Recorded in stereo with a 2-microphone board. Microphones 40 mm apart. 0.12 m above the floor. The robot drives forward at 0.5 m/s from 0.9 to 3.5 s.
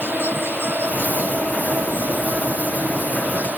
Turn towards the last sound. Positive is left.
turn(degrees=-50)  # may be behind; listen again after turning